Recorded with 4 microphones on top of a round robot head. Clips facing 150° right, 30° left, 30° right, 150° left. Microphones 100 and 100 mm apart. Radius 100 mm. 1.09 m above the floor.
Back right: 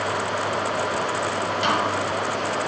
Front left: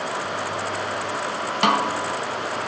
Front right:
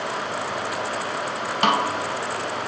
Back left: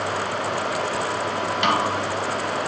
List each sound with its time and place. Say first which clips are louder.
1.6 s a snare drum: front left 4 dB, front right 2 dB; 15° left, 1.8 m